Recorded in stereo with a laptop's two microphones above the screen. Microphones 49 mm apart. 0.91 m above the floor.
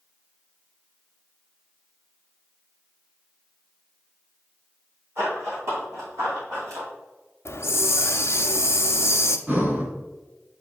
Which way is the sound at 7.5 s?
55° left (ahead or behind).